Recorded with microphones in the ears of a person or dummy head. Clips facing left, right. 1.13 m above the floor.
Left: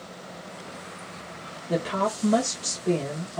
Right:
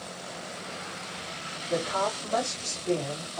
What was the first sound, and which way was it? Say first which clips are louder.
A woman speaking: left 3 dB; 60° left (ahead or behind).